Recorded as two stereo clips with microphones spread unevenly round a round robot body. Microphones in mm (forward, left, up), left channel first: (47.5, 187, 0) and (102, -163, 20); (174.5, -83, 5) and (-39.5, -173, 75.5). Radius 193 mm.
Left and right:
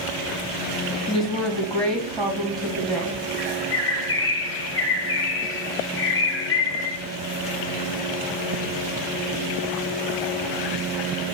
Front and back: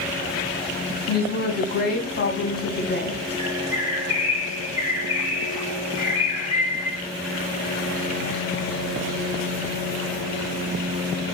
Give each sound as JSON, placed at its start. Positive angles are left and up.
{"t": 1.1, "sound": "a woman speaking", "azimuth_deg": 10, "distance_m": 1.7}
{"t": 3.4, "sound": "a bird", "azimuth_deg": 60, "distance_m": 1.7}